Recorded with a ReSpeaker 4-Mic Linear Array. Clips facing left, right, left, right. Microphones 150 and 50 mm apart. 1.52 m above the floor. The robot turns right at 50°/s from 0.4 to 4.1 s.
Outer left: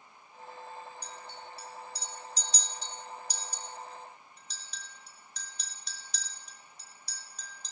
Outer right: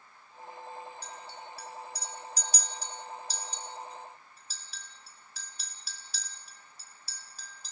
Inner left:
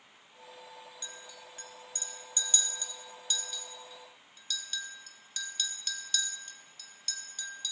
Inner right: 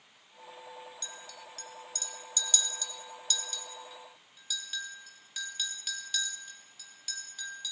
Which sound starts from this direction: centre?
A clink, at 1.0 s.